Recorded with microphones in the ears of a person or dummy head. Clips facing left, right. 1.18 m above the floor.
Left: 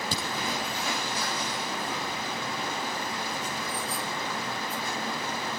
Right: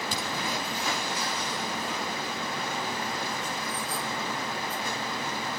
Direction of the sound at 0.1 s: 35° left (ahead or behind).